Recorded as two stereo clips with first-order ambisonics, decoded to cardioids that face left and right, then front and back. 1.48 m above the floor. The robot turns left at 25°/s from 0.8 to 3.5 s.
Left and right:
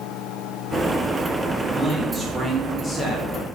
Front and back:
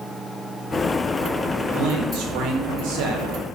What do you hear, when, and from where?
1.7 s a man speaking: 175° right, 0.8 m; by 3.4 s 145° left, 0.8 m